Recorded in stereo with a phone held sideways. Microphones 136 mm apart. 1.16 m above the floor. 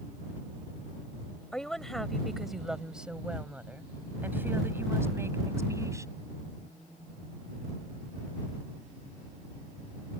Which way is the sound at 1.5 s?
5° left (ahead or behind).